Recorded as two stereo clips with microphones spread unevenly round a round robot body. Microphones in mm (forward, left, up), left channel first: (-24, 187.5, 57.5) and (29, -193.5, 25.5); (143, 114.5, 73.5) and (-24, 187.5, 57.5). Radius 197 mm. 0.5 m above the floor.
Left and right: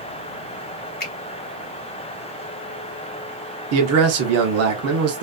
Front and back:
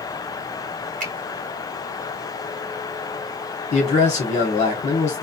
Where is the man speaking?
65° right, 0.9 m.